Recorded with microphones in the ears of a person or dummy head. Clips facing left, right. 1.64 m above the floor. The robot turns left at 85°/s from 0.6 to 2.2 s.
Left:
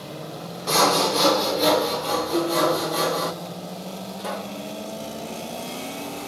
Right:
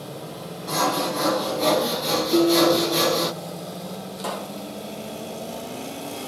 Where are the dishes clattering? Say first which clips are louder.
Right 6 dB; 50° right (ahead or behind), 1.4 m.